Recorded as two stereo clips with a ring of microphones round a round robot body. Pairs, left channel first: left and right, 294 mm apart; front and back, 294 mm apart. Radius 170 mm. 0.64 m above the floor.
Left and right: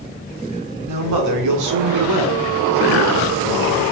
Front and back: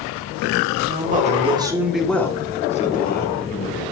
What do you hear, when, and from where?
0.9 s a man speaking: 125° right, 1.5 m; by 3.9 s 45° right, 1.9 m